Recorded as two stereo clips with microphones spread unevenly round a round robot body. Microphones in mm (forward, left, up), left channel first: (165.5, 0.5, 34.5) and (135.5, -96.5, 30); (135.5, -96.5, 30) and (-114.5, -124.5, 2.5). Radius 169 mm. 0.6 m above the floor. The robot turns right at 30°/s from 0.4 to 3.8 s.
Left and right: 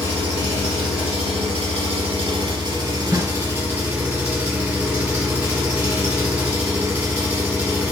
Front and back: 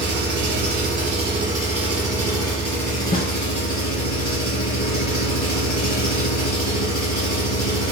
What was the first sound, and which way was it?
An engine running, 135° right.